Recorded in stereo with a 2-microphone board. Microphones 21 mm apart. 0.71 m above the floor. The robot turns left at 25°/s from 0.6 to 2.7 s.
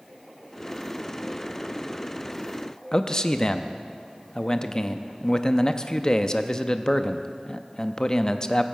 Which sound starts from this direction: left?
A man speaking, at 2.9 s.